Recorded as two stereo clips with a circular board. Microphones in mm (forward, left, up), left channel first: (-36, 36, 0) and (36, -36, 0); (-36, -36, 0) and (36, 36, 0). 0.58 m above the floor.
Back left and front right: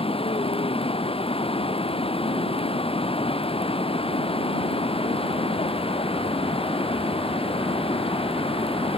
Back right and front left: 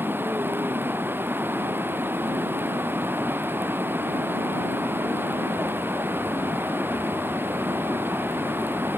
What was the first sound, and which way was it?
Running water, 115° left.